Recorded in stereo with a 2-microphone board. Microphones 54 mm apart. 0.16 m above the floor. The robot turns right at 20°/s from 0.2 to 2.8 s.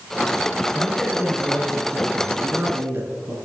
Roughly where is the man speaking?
Behind.